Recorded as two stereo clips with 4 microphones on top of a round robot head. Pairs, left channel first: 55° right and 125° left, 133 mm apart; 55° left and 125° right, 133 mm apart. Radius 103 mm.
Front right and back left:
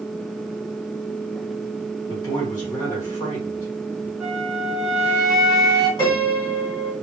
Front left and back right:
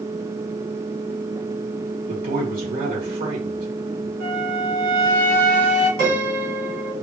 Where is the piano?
115° right, 2.5 m.